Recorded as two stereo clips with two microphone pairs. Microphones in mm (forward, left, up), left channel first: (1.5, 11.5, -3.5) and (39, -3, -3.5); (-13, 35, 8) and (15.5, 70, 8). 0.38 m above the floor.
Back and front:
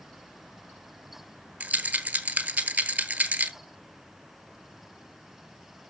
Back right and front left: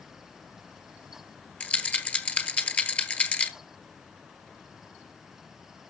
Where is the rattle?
70° right, 1.0 m.